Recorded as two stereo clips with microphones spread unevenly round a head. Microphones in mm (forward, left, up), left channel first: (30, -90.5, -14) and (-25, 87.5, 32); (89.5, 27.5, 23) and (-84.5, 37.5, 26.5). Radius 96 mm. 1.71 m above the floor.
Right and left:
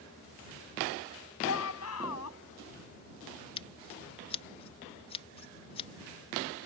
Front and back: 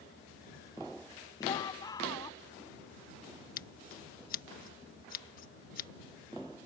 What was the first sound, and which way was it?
A shout, 75° right.